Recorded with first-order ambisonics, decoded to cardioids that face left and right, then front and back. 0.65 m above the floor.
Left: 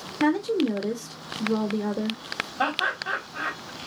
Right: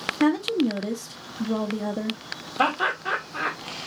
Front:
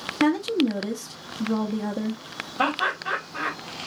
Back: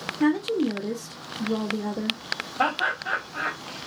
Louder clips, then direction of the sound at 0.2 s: Even, front 1 dB; 50° right.